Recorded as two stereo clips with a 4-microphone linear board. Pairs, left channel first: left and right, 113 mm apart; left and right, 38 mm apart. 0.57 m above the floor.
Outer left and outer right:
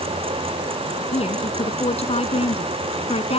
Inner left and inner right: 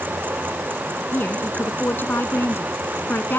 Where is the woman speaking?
65° left (ahead or behind).